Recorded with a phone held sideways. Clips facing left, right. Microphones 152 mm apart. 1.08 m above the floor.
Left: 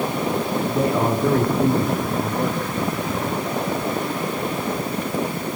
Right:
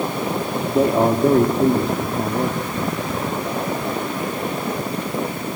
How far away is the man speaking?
About 2.5 m.